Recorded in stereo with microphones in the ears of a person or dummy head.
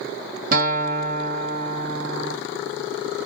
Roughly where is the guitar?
Right.